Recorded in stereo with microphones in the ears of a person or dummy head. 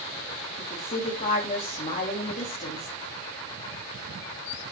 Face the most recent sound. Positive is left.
turn(degrees=35)  # may be behind; listen again after turning